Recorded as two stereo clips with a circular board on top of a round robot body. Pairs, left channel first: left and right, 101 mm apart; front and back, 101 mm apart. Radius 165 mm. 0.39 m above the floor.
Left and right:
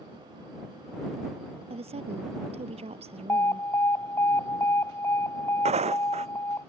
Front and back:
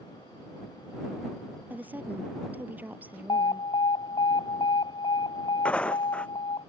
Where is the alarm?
30° left.